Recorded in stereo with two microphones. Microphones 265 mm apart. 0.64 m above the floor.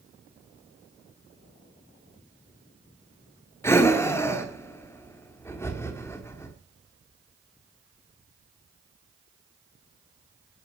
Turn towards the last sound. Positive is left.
turn(degrees=10)  # may be behind; listen again after turning